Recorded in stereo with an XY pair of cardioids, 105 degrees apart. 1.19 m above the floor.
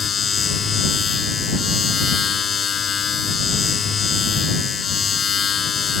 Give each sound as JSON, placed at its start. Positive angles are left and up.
{"t": 0.0, "sound": "a machine running", "azimuth_deg": 45}